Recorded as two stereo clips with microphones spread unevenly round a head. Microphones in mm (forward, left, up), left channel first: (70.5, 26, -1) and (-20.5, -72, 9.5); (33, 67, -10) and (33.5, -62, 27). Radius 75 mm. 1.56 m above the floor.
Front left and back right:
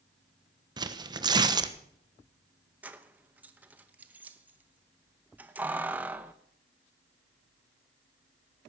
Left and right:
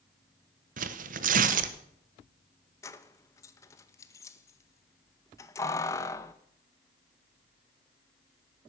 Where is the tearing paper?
75° right, 1.2 m.